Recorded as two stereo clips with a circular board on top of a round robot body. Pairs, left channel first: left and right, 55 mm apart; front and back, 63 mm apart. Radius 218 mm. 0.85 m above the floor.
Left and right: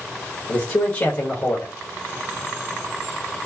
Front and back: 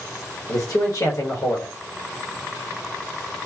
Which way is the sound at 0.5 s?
50° left.